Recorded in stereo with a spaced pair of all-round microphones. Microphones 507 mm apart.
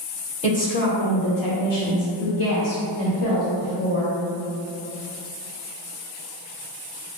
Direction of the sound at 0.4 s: 10° left (ahead or behind).